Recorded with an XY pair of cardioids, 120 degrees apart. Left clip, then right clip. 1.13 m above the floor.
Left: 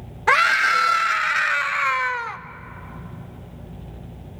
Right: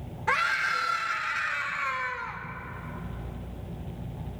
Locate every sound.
0.3 s a scream: 55° left, 0.9 m